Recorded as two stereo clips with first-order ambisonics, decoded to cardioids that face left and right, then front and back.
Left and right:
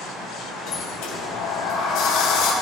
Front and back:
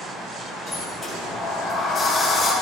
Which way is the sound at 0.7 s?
85° left.